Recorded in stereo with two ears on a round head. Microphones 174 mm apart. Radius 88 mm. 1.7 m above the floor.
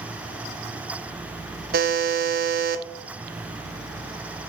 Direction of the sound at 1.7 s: 55° right (ahead or behind).